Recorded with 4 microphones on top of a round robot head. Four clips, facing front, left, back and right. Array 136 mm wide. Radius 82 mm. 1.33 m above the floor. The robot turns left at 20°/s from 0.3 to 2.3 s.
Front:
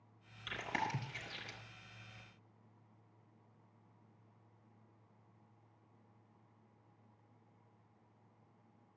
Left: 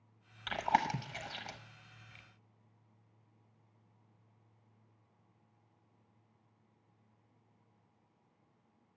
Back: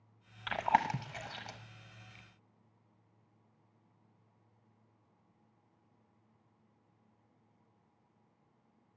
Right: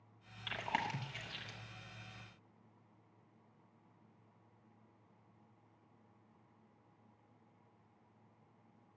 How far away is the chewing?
About 0.9 m.